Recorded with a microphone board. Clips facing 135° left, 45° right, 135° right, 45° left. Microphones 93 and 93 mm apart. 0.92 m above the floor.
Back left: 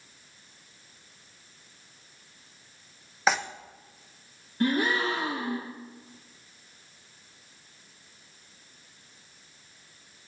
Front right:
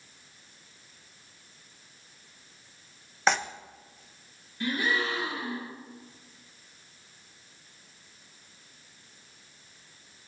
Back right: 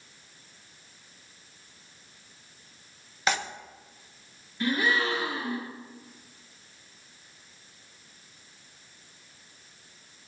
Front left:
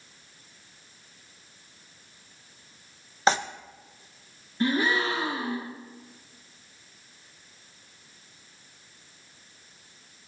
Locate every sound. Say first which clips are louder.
3.3 s tearing paper: even, front left 5 dB; 50° left, 0.7 m
4.6 s a gasp: back left 4 dB, front left 2 dB; 100° left, 1.8 m